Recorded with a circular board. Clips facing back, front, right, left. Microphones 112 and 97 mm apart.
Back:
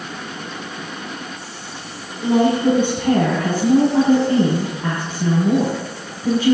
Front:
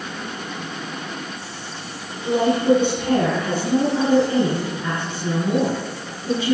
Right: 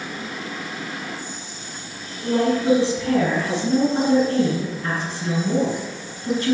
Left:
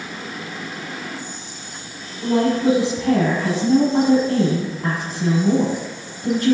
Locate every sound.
2.2 s a woman speaking: 135° left, 6.5 m